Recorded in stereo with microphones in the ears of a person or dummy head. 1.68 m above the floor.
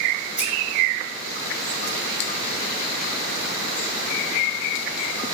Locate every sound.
0.4 s scissors: 5° right (ahead or behind), 1.0 m